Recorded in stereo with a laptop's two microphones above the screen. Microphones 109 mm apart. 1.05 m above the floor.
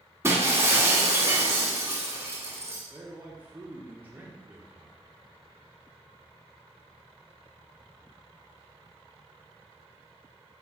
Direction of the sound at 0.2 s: 25° right (ahead or behind).